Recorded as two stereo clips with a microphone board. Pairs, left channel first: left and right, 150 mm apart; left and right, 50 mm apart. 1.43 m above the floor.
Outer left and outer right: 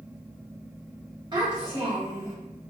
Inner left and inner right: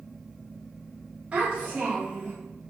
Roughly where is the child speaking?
Right.